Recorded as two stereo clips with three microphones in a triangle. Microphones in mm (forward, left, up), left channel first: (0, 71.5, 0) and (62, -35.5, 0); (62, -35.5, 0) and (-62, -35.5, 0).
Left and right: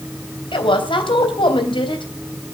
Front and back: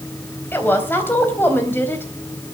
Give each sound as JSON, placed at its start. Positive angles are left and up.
{"t": 0.5, "sound": "a woman speaking", "azimuth_deg": 75, "distance_m": 3.5}